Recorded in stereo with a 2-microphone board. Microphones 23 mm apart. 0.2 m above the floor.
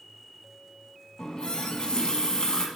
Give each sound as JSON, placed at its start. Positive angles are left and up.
{"t": 1.2, "sound": "a running tap", "side_deg": 40, "distance_m": 0.9}